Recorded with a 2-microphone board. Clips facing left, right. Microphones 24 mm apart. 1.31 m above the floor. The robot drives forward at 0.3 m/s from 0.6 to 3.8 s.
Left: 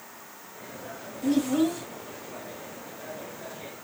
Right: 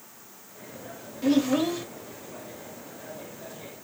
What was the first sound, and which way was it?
A child speaking, 45° right (ahead or behind).